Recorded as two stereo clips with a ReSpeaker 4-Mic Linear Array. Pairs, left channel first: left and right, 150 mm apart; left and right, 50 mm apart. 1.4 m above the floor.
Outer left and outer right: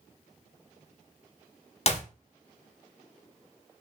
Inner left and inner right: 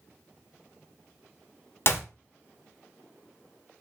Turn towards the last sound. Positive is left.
turn(degrees=45)  # may be behind; listen again after turning